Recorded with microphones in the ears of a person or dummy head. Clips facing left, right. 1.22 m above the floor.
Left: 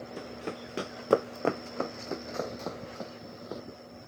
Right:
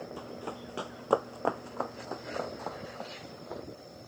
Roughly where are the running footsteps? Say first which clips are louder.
Left 2 dB; left.